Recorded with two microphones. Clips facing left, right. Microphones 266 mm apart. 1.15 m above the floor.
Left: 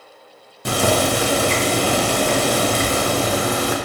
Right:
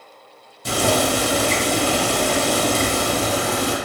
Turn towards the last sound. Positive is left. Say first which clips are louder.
# left 1 dB
turn(degrees=65)  # may be behind; listen again after turning